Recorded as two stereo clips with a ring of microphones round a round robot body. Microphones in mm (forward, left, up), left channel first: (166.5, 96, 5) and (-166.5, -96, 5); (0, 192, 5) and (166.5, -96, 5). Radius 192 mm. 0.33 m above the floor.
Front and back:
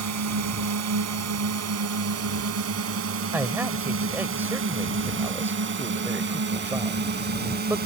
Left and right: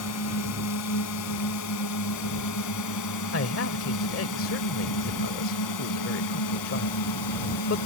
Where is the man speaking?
130° left.